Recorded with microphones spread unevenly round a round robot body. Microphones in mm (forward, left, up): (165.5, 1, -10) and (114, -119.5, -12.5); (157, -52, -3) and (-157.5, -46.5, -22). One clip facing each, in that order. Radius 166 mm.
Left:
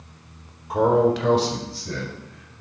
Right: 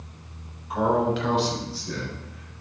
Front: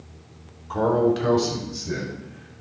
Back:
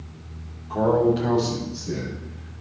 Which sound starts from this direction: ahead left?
A man speaking, at 0.7 s.